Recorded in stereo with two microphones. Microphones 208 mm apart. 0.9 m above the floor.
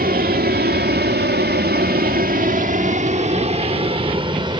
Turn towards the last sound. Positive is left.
turn(degrees=-20)  # may be behind; listen again after turning